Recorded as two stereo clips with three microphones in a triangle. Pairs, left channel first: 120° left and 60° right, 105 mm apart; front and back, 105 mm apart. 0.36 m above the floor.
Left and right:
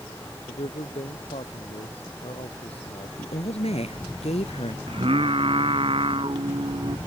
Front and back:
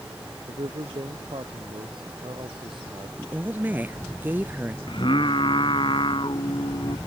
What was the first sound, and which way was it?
A man speaking, 140° left.